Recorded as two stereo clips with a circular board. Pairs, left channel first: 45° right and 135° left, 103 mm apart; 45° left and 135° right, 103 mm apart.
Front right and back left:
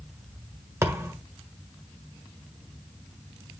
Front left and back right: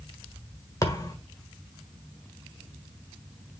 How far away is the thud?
About 1.6 m.